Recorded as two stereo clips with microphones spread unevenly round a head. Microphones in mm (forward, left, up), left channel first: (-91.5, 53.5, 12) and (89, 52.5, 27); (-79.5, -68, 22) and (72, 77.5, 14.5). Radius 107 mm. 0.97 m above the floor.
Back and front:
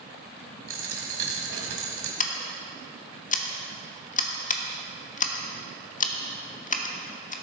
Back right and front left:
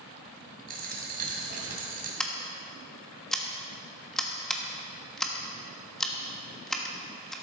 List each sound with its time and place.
0.7 s a dropped coin: 5° right, 2 m
2.2 s scissors: 135° left, 1.3 m